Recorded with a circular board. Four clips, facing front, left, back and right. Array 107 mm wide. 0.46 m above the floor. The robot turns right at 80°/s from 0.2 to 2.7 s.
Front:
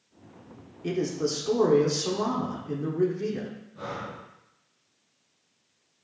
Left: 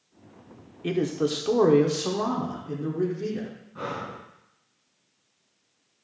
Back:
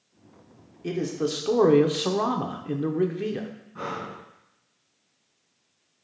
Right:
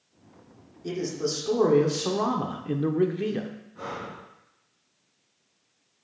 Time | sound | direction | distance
0.8 | a man speaking | 85° left | 0.7 m
3.8 | breathing | 140° left | 2 m